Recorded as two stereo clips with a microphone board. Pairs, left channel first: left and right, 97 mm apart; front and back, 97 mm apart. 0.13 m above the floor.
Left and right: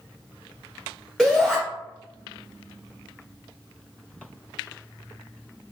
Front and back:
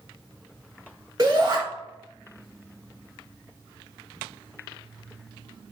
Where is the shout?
170° right, 1.3 m.